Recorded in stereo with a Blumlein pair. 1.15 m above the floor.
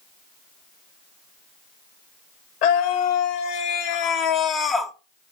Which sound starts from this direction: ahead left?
A scream, at 2.6 s.